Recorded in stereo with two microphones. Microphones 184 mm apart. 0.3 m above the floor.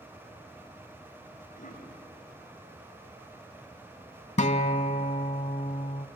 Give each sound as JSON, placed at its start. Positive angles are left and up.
{"t": 1.6, "sound": "a cough", "side_deg": 50, "distance_m": 2.5}
{"t": 4.4, "sound": "a guitar", "side_deg": 40, "distance_m": 0.5}